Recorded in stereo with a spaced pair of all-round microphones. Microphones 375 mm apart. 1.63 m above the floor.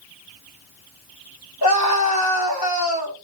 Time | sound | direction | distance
1.6 | a scream | 75° left (ahead or behind) | 4.5 m